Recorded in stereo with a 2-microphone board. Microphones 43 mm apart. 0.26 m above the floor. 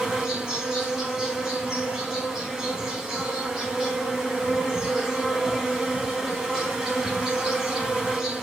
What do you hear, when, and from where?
0.0 s an insect: 15° right (ahead or behind), 1.2 m